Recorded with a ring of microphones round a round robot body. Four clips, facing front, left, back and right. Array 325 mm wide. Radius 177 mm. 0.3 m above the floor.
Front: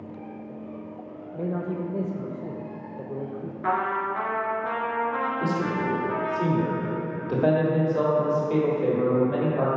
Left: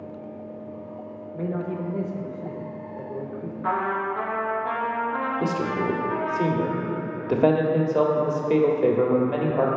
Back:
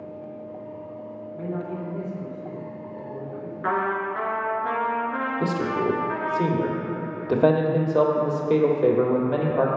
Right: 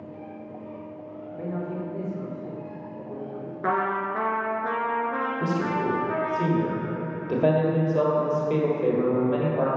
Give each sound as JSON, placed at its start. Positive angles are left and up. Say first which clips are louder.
{"t": 1.4, "sound": "a man speaking", "louder": "left 3 dB, front 2 dB", "azimuth_deg": 35, "distance_m": 1.1}
{"t": 3.6, "sound": "a trumpet", "louder": "even, back 1 dB", "azimuth_deg": -105, "distance_m": 1.8}
{"t": 5.4, "sound": "a man speaking", "louder": "right 1 dB, back 2 dB", "azimuth_deg": 145, "distance_m": 1.7}